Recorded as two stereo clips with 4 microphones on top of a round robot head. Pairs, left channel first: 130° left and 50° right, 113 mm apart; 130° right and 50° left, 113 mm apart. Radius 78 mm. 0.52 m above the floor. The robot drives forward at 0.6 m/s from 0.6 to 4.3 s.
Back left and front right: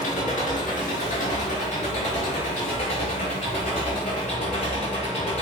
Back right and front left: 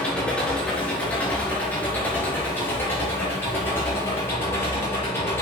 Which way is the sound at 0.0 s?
150° left.